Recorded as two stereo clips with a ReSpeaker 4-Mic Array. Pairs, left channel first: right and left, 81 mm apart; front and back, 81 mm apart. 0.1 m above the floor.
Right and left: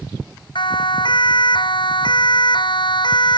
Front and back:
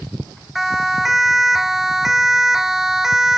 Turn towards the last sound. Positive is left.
turn(degrees=-95)